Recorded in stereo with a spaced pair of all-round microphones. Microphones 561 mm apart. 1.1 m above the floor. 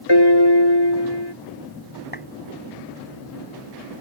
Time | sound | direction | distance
0.1 | a piano | 45° left (ahead or behind) | ?
2.1 | a clap | 15° left (ahead or behind) | ?